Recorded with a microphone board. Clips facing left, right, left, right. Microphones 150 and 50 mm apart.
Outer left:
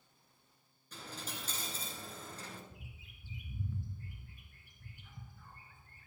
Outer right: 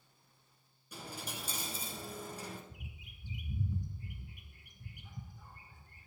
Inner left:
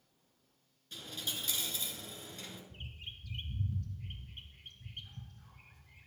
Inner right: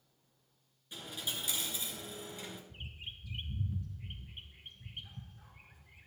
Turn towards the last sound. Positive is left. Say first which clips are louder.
# outer right 2 dB, inner right 1 dB
turn(degrees=-15)  # may be behind; listen again after turning